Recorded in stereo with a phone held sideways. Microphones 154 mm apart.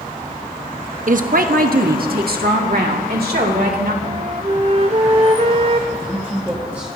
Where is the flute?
40° right (ahead or behind), 0.8 m.